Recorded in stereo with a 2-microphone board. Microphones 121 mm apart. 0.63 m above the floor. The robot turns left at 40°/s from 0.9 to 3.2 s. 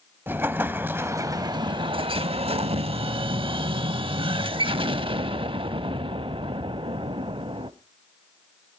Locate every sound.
0.3 s an explosion: 25° right, 0.6 m; by 7.7 s 115° right, 0.6 m